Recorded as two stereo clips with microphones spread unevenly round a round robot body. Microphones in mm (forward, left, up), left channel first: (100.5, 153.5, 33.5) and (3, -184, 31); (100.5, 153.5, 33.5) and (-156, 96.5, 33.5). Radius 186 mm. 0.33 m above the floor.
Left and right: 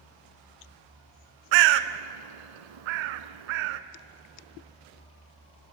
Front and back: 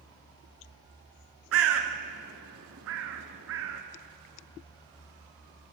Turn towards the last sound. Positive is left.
turn(degrees=-110)